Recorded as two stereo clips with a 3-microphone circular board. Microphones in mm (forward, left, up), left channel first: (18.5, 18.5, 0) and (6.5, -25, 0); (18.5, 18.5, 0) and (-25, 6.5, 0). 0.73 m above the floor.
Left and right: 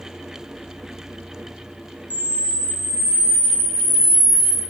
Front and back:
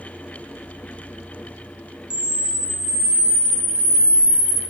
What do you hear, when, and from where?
2.1 s a camera shutter: 130° left, 2 m